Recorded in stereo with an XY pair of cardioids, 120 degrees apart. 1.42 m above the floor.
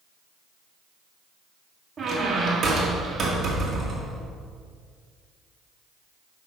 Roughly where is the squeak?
Ahead right.